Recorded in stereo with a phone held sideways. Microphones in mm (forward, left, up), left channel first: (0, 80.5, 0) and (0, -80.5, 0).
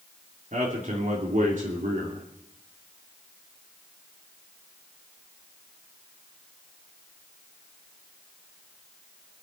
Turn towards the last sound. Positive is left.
turn(degrees=-55)  # may be behind; listen again after turning